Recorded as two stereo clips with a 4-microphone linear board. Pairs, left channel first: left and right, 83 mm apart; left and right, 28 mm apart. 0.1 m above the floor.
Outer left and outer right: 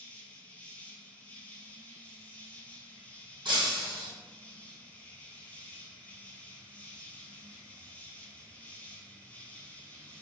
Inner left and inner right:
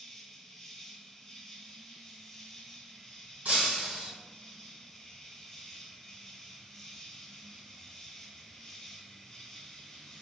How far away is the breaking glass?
About 1.9 m.